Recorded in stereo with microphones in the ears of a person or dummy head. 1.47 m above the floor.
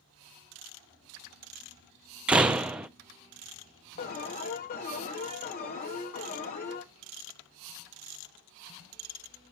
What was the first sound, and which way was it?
A door slam, 10° right (ahead or behind).